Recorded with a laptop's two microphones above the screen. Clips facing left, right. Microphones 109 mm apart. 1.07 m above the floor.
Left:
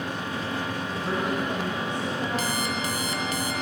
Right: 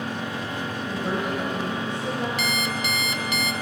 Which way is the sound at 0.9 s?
30° right (ahead or behind).